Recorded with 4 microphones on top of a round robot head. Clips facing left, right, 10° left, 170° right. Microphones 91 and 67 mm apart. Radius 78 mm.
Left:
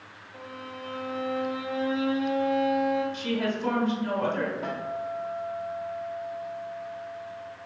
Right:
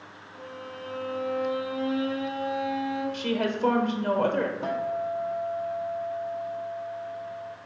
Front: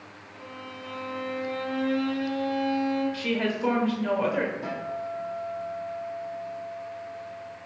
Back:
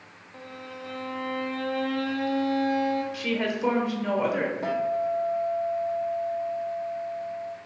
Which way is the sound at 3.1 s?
95° right.